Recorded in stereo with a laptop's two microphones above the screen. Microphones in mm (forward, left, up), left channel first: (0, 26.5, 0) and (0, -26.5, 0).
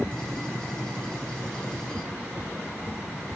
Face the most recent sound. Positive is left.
turn(degrees=20)  # may be behind; listen again after turning